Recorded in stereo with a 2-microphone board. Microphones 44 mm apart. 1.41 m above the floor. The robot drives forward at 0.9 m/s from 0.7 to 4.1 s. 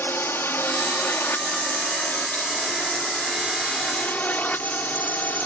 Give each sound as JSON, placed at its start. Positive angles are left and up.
{"t": 0.0, "sound": "a drone", "side_deg": 60}